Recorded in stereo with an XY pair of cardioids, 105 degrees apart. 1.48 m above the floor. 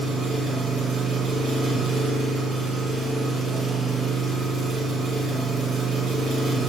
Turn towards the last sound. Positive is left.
turn(degrees=-70)